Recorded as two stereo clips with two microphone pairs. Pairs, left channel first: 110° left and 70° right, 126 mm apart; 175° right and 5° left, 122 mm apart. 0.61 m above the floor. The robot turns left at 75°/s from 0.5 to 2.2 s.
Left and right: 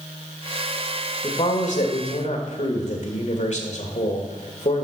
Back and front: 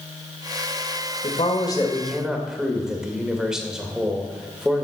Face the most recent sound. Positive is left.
turn(degrees=90)